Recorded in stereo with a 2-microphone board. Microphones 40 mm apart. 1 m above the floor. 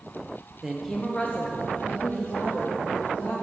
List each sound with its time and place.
0.6 s a woman speaking: 10° right (ahead or behind), 0.6 m; by 3.3 s 60° left (ahead or behind), 2.5 m